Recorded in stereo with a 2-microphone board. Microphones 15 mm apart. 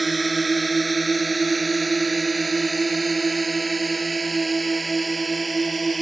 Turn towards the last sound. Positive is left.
turn(degrees=5)  # may be behind; listen again after turning